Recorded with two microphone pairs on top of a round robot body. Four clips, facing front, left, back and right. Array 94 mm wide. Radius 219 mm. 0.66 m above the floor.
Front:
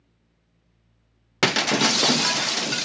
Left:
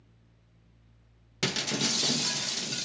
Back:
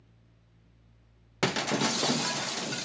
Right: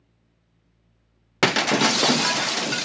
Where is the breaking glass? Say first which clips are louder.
Right 12 dB, front 7 dB; 65° right, 0.5 m.